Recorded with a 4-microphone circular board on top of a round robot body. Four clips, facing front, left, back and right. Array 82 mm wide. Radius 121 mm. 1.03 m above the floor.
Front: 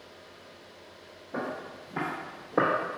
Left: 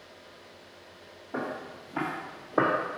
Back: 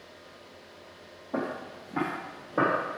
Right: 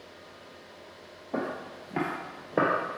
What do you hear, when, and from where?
1.3 s footsteps: 115° right, 1.5 m; by 3.0 s 40° right, 1.3 m